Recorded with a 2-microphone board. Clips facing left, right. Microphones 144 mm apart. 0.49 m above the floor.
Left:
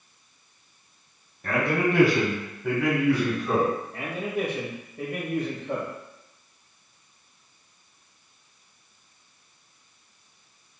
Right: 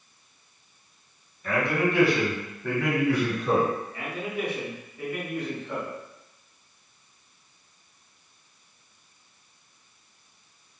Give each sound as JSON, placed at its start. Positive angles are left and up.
{"t": 1.4, "sound": "a man speaking", "side_deg": 65, "distance_m": 1.7}
{"t": 3.9, "sound": "a man speaking", "side_deg": 50, "distance_m": 1.3}